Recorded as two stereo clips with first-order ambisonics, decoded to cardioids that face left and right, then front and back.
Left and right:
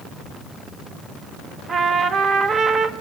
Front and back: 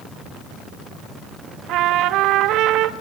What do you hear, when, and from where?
1.7 s a trumpet: 150° right, 0.8 m